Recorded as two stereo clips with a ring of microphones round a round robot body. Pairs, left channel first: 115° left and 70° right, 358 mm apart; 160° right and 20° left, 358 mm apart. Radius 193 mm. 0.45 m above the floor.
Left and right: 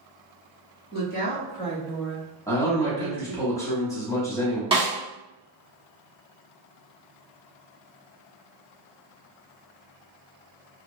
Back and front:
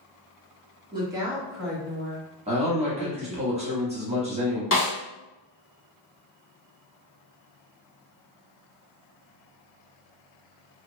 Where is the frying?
I don't hear frying.